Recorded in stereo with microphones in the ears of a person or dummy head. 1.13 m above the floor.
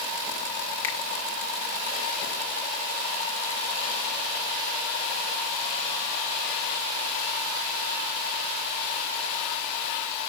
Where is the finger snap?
15° left (ahead or behind), 2.5 m.